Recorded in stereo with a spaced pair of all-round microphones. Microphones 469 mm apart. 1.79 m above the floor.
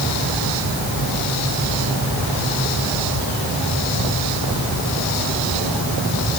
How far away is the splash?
No splash in this recording.